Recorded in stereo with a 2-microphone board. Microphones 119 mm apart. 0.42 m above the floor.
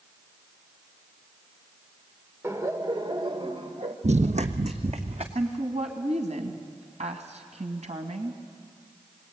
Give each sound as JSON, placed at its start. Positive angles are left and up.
{"t": 2.4, "sound": "laughter", "side_deg": -20, "distance_m": 1.5}
{"t": 4.0, "sound": "running footsteps", "side_deg": -70, "distance_m": 1.0}
{"t": 5.3, "sound": "a woman speaking", "side_deg": -70, "distance_m": 2.5}